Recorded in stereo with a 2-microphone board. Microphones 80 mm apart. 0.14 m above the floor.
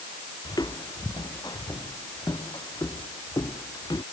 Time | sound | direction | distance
0.5 | footsteps | 65° left (ahead or behind) | ?